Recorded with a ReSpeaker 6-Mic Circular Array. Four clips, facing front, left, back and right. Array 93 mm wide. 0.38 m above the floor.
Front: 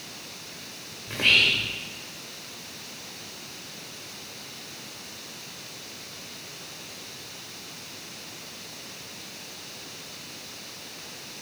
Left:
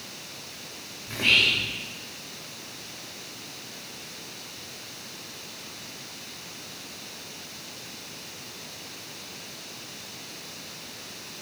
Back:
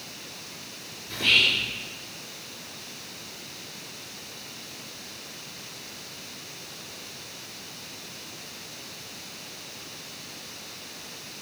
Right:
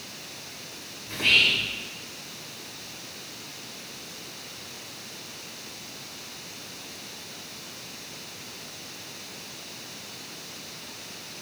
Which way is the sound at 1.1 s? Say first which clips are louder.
Even, front 1 dB; 10° left.